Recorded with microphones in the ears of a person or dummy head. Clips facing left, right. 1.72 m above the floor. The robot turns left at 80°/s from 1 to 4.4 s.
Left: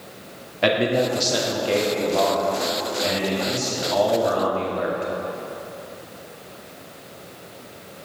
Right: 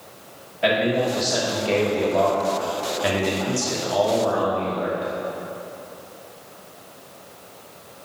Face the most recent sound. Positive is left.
turn(degrees=155)